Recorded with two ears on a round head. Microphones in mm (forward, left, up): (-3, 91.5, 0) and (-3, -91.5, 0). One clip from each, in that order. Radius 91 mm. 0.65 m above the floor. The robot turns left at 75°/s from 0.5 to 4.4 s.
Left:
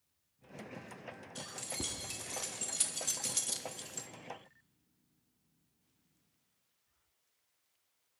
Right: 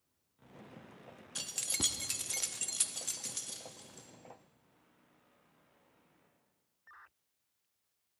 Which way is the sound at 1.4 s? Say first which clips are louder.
Right 6 dB; 30° right (ahead or behind).